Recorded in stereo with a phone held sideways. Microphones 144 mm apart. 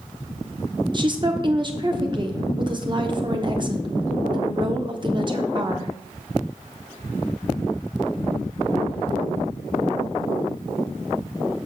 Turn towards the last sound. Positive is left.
turn(degrees=-35)  # may be behind; listen again after turning